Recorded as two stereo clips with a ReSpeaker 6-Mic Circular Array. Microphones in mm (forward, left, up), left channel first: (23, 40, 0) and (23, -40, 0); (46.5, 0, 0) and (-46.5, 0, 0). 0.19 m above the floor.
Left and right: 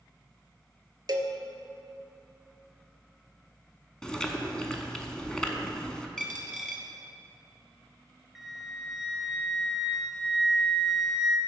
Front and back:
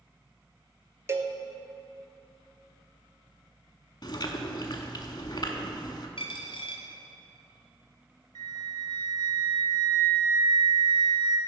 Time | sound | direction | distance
1.1 | a cowbell | 120° right | 0.6 m
4.0 | chewing | 10° left | 0.7 m
6.2 | a dropped coin | 5° left | 1.4 m
8.3 | a flute | straight behind | 0.7 m